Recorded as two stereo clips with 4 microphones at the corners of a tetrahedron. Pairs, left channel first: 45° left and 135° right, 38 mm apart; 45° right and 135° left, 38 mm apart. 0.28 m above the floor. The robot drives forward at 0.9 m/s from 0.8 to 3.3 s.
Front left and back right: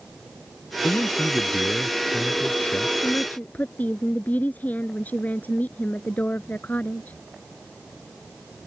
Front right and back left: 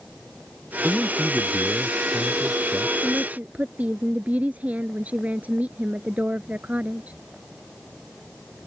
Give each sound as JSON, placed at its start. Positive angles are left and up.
{"t": 0.8, "sound": "a man speaking", "azimuth_deg": 75}
{"t": 3.0, "sound": "a woman speaking", "azimuth_deg": 85}